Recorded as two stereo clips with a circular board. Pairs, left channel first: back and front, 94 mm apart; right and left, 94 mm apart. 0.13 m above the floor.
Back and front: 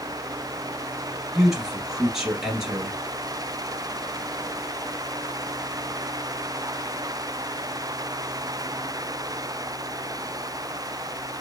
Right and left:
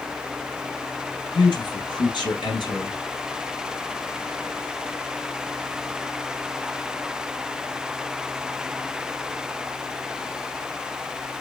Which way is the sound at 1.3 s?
85° right.